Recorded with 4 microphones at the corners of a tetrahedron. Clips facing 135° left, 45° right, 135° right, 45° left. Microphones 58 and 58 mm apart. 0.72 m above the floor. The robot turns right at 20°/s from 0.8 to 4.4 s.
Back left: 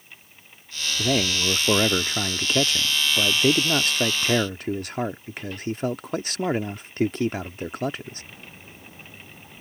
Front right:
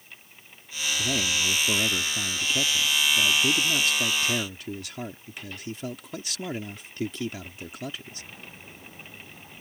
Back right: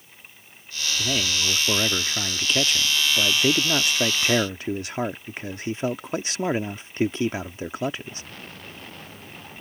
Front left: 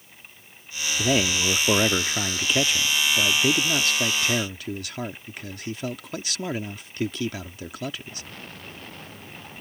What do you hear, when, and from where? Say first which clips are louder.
1.0 s a man speaking: back left 5 dB, front left 4 dB; 100° left; by 8.2 s 170° left